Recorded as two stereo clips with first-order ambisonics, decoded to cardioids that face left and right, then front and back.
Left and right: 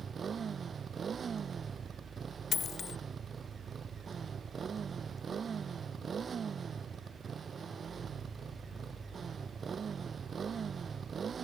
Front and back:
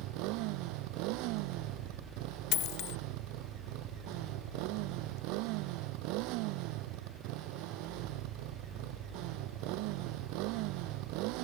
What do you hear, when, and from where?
0.0 s a motorcycle: 160° right
2.5 s a dropped coin: 30° left